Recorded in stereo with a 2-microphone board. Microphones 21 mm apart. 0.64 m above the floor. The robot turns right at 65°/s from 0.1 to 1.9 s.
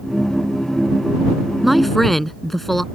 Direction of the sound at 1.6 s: 5° right (ahead or behind).